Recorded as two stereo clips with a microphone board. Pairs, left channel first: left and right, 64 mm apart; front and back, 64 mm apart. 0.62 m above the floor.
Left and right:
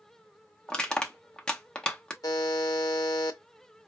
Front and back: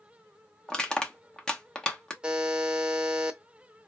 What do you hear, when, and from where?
0.7 s crushing: 45° left, 0.8 m
2.2 s a buzzer: 105° left, 0.6 m